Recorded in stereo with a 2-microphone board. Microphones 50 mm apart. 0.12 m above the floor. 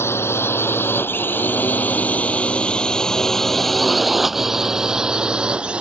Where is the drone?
55° left (ahead or behind); by 5.8 s 20° right (ahead or behind).